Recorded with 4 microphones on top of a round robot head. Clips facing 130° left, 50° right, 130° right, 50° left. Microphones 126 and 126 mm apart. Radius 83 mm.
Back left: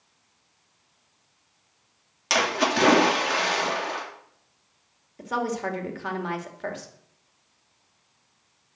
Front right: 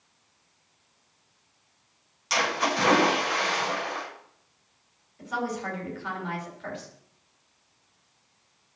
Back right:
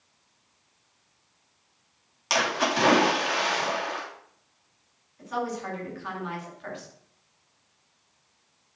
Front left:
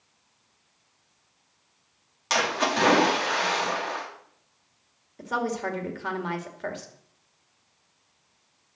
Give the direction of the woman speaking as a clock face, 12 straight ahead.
9 o'clock.